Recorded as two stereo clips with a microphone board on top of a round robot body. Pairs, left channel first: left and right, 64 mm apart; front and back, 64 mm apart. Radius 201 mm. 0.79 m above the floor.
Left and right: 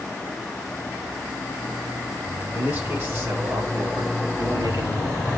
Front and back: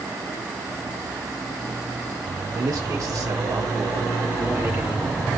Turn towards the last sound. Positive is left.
turn(degrees=-110)